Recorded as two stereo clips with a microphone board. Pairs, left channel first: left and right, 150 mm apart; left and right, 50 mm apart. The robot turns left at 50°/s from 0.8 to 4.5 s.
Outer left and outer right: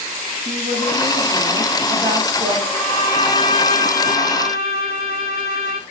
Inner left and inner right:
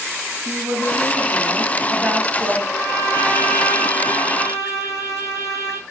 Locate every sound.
0.5 s a woman speaking: 85° right, 3.5 m; by 2.6 s 175° right, 3.5 m
2.7 s a violin: 175° left, 3.5 m; by 5.8 s 85° left, 3.5 m